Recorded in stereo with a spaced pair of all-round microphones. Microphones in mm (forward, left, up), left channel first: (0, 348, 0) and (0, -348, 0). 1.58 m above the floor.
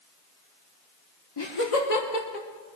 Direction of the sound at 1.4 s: 30° left (ahead or behind).